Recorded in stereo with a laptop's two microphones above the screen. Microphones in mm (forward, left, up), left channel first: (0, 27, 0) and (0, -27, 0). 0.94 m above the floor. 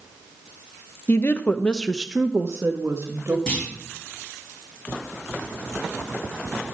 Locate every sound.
1.1 s a woman speaking: 45° left (ahead or behind), 1.0 m; by 3.4 s 35° right (ahead or behind), 2 m
3.5 s a clunk: 10° left (ahead or behind), 6 m